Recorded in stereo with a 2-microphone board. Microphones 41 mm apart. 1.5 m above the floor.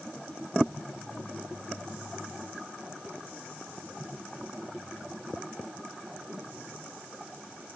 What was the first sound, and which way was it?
Only background noise.